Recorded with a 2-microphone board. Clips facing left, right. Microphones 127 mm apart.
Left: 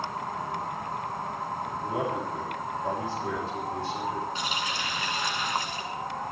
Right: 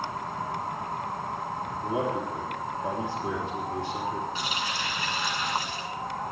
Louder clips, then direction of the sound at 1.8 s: Right 2 dB; 20° right (ahead or behind).